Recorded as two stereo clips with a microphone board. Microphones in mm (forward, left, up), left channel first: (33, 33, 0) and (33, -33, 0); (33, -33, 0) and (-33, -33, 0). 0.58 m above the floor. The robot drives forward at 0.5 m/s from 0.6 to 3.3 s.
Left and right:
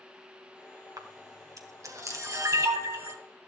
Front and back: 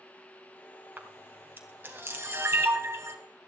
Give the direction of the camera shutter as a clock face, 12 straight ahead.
4 o'clock.